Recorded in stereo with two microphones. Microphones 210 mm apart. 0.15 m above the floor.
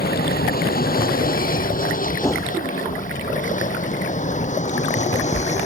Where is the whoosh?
15° left (ahead or behind).